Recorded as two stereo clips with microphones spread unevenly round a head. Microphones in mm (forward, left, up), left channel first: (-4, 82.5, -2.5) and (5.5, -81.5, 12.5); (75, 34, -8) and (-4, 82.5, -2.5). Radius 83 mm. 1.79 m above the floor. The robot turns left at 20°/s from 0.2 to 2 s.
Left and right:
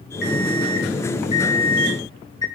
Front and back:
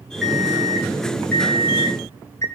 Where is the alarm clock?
60° left, 3.5 m; by 2.5 s 25° left, 3.5 m.